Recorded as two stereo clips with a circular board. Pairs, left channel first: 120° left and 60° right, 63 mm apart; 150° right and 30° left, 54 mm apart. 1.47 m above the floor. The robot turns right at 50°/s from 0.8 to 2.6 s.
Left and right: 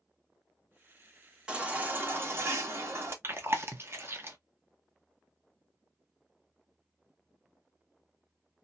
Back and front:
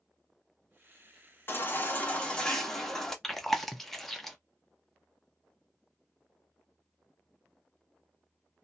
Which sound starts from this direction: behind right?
A baby crying, at 1.5 s.